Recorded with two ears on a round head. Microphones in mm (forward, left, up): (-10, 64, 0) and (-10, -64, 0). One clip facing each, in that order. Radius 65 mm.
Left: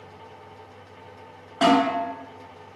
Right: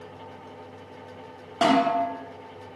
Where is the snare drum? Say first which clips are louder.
Left 2 dB; 15° right (ahead or behind), 1.0 m.